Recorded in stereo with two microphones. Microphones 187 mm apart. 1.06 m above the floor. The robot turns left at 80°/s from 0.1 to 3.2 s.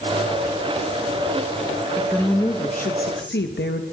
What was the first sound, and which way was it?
A woman speaking, 165° right.